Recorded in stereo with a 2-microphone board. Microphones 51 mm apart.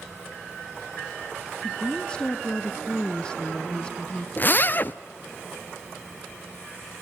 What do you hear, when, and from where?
1.6 s a woman speaking: 20° left (ahead or behind), 1.1 m
4.4 s a zipper: 40° left (ahead or behind), 0.6 m